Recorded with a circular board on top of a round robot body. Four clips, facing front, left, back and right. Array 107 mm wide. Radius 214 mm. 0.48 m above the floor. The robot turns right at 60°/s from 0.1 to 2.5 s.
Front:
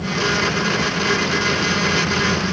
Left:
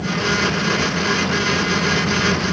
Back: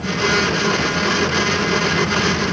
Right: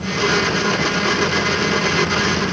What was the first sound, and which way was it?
Only background noise.